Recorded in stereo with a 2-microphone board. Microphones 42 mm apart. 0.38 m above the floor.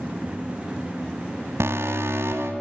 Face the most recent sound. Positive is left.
turn(degrees=-70)  # may be behind; listen again after turning